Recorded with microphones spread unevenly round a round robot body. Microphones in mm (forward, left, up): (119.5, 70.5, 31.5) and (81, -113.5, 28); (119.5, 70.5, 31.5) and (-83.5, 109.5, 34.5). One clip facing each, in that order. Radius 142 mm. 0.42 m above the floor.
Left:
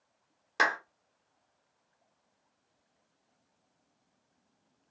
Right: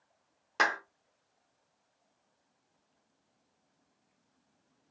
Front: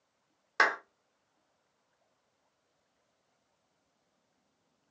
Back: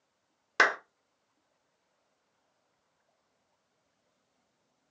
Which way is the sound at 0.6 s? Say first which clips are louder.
Left 1 dB, back 3 dB; 160° left.